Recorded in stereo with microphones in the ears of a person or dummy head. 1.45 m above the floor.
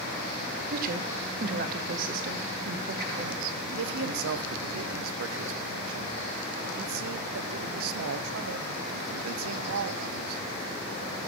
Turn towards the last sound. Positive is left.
turn(degrees=-75)  # may be behind; listen again after turning